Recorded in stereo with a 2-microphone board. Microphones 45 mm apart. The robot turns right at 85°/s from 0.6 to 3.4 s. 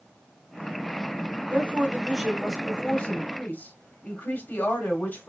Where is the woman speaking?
80° right, 1.3 m; by 5.3 s 85° left, 1.3 m.